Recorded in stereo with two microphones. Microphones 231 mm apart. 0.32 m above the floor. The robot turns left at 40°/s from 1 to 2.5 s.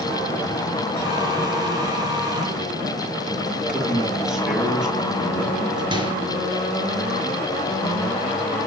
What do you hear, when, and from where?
3.5 s a man speaking: 5° right (ahead or behind), 6 m
5.9 s a microwave: 20° right (ahead or behind), 4.5 m